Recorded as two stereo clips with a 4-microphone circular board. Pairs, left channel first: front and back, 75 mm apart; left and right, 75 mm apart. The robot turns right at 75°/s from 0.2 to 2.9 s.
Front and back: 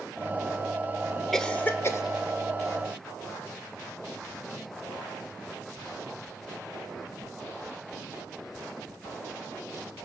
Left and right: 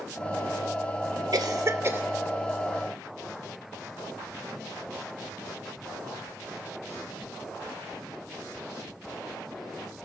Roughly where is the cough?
Right.